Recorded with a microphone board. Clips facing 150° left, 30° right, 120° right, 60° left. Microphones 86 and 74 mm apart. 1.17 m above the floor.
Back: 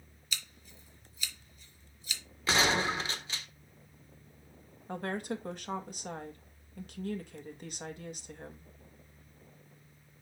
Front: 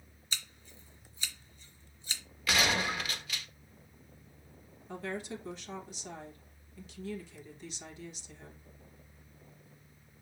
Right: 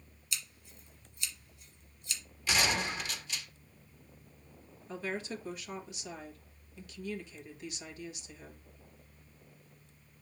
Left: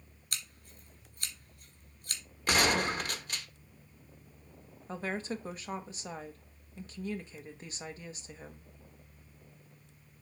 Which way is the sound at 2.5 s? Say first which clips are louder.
Back 2 dB, left 4 dB; 95° left.